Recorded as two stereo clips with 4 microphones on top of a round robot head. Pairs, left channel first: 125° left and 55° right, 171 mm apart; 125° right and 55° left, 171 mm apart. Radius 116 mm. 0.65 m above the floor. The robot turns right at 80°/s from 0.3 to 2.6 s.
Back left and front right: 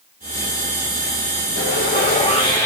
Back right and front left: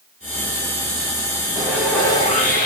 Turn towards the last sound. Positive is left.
turn(degrees=-155)